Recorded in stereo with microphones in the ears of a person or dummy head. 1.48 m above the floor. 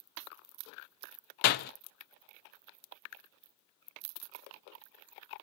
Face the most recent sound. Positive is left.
turn(degrees=50)  # may be behind; listen again after turning